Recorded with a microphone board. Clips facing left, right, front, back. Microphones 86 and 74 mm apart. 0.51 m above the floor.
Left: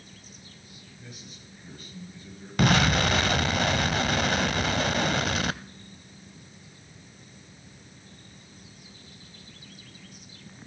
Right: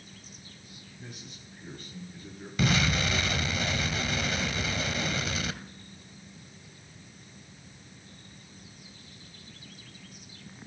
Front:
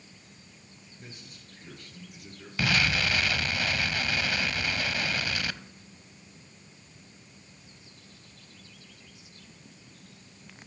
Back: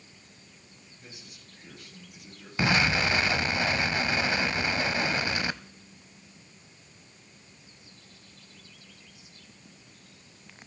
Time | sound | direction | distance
1.0 | a man speaking | 45° right | 10 m
2.6 | an explosion | 115° left | 0.5 m